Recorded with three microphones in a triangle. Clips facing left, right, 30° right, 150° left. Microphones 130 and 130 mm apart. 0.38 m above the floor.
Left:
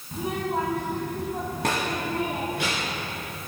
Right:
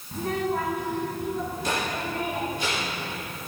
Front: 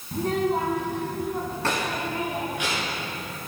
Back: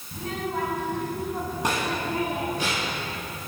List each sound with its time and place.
0.1 s a child speaking: 5° left, 1.5 m; by 3.0 s 100° left, 3 m